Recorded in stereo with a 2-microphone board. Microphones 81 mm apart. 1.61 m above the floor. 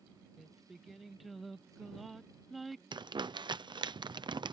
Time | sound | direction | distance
0.4 | singing | centre (ahead or behind) | ?
2.9 | crumpling | 75° right (ahead or behind) | ?